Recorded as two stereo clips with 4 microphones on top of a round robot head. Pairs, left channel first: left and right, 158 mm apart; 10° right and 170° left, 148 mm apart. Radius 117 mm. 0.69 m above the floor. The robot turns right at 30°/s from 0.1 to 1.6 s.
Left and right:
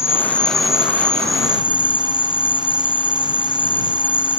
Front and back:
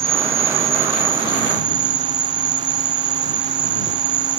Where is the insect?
165° left; by 4.4 s 150° right.